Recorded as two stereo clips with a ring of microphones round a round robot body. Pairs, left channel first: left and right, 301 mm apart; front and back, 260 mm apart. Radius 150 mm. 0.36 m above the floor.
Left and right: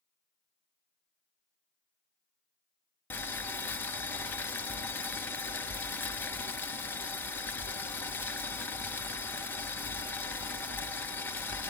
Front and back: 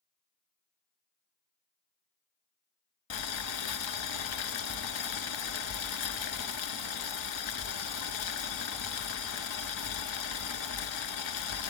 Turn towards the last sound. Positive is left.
turn(degrees=5)